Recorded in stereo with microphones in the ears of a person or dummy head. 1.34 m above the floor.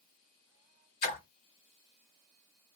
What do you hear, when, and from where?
1.0 s a splash: 30° left (ahead or behind), 1.4 m